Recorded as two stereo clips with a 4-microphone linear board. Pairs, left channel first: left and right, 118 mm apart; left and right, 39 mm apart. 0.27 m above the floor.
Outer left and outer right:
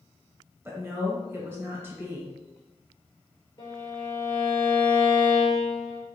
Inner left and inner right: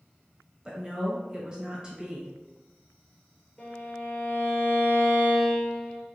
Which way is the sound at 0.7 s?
20° right (ahead or behind).